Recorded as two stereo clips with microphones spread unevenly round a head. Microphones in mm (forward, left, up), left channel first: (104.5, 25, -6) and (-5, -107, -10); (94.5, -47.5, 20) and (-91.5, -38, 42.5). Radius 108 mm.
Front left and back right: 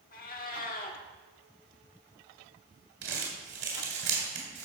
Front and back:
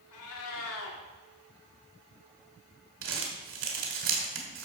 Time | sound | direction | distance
0.1 | a cat meowing | 15° left | 1.5 m
3.0 | crumpling | 170° right | 2.5 m